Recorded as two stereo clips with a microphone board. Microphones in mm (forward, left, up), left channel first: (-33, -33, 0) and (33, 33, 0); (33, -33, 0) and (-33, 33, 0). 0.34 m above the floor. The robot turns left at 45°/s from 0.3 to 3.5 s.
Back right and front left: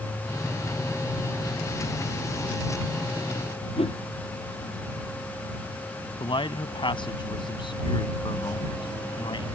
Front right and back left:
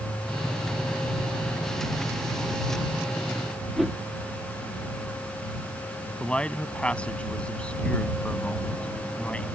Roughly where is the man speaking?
Behind right.